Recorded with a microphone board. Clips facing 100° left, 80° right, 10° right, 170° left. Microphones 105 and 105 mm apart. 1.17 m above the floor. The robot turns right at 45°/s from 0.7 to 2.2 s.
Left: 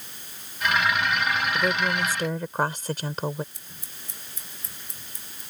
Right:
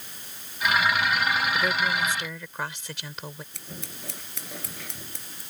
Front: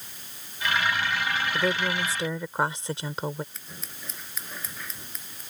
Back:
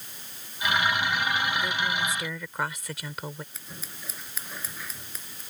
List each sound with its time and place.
1.5 s a woman speaking: 20° left; by 3.4 s 50° left
3.5 s scissors: 105° right